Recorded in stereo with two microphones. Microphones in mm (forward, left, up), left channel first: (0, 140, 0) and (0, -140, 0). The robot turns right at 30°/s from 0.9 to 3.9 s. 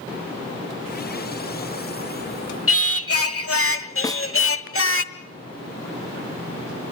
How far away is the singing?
About 1.1 m.